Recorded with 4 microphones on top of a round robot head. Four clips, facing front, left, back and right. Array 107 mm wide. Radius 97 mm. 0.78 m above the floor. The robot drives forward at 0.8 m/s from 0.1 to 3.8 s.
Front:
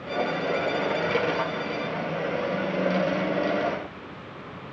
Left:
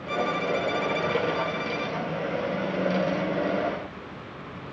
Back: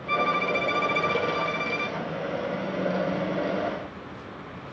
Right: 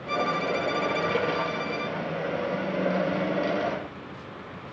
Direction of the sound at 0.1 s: 165° right.